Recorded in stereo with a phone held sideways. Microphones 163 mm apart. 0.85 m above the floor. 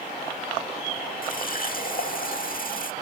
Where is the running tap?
60° left (ahead or behind), 1.4 m.